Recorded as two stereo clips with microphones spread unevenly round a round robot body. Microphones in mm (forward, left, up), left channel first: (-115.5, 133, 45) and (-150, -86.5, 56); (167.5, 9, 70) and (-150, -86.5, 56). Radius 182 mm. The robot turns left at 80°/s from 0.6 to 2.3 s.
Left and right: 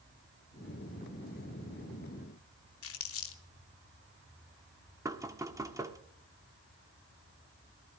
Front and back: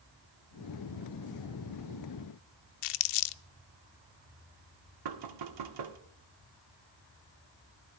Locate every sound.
2.8 s crumpling: 30° left, 0.5 m
5.0 s knocking: 175° right, 1.5 m